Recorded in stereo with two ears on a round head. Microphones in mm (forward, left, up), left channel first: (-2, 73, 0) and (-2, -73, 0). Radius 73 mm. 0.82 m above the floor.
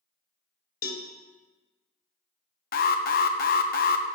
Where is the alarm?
60° left (ahead or behind), 0.6 m.